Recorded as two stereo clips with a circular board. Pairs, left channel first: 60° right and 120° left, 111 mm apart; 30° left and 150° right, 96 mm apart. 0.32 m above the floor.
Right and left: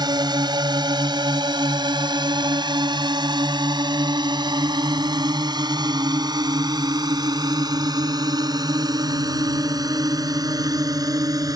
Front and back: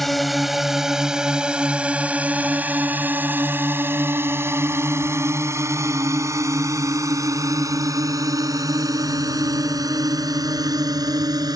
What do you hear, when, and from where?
0.0 s a drone: 120° left; by 11.6 s 170° left